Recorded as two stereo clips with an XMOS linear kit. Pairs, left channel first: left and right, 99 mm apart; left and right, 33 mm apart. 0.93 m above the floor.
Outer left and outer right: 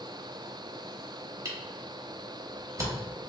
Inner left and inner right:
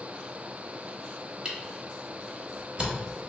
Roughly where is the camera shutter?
Right.